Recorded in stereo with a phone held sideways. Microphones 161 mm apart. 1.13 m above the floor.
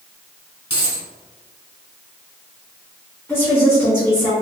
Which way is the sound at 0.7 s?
30° left (ahead or behind).